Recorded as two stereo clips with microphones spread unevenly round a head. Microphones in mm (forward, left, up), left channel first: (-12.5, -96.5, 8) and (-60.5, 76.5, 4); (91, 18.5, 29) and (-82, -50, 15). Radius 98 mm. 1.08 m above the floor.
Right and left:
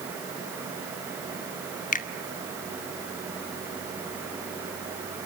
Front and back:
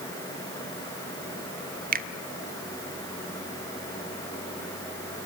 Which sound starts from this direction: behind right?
A finger snap, at 1.9 s.